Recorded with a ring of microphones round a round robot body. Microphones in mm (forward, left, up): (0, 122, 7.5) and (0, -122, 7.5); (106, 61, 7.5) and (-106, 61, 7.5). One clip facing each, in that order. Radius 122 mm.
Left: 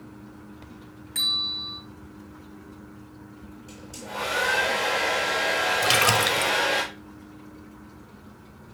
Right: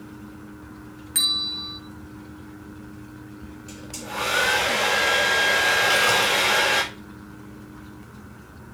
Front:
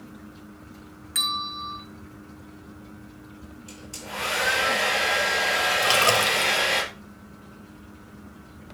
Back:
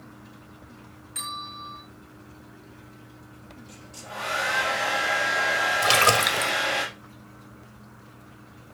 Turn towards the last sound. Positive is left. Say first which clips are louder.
# even, even
turn(degrees=115)